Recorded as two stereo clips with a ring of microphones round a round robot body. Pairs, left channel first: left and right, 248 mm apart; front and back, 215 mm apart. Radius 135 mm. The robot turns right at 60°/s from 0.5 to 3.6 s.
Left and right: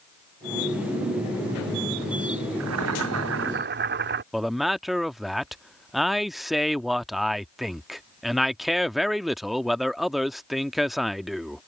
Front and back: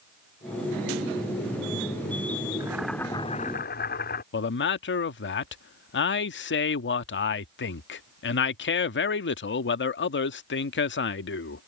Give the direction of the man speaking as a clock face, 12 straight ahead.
12 o'clock.